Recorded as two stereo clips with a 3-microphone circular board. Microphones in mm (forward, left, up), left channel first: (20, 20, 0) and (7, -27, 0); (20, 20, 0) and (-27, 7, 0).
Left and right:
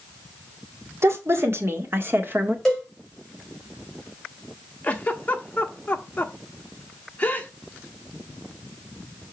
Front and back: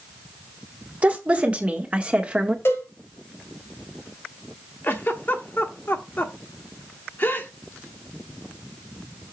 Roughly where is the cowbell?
Ahead.